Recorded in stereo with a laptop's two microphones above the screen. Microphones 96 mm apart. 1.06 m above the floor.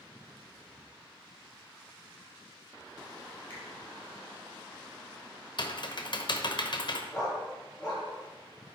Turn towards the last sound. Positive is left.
turn(degrees=10)  # may be behind; listen again after turning